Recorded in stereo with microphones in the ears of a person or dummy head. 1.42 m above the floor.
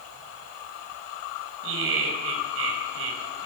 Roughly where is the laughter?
Right.